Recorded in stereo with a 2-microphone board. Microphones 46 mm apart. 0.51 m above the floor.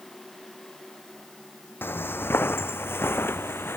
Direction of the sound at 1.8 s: 55° left (ahead or behind).